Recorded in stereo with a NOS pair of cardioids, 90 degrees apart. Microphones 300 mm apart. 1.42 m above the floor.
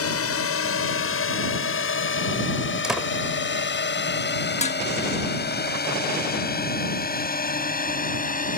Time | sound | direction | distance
0.0 | a drone | 50° left | ?
2.8 | a door slam | straight ahead | ?
4.6 | dishes clattering | 25° left | ?